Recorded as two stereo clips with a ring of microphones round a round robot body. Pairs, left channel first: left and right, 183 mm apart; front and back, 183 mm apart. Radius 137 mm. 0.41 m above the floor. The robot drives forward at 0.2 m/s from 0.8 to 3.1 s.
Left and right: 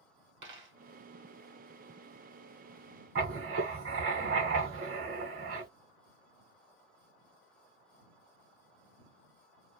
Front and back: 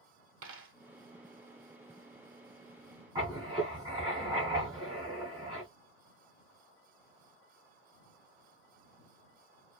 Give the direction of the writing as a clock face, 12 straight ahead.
4 o'clock.